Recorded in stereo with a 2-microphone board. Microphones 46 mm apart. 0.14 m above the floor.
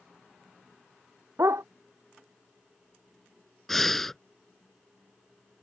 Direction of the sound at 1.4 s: 80° right.